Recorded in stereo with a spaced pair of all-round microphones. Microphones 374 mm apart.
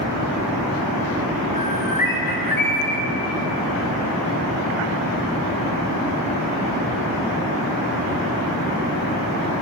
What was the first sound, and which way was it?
A bird, 60° left (ahead or behind).